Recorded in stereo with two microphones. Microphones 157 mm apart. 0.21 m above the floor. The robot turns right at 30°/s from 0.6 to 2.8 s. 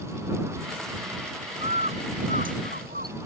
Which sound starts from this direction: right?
A bird, at 1.6 s.